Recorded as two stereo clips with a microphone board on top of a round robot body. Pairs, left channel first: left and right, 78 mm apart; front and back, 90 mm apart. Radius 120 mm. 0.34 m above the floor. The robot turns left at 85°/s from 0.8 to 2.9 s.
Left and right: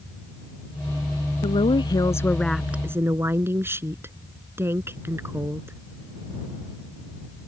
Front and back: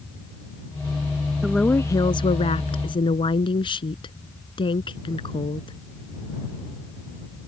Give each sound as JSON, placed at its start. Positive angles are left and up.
{"t": 1.4, "sound": "a woman speaking", "azimuth_deg": 95}